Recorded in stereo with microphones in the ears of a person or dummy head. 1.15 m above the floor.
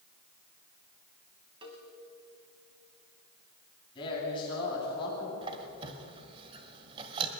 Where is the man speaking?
30° left (ahead or behind), 9.5 m.